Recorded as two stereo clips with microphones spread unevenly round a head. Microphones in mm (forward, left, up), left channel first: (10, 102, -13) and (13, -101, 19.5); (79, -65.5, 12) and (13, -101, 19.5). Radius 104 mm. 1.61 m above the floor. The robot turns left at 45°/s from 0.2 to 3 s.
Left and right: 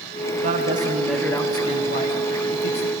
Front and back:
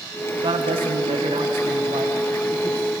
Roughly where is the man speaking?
Behind right.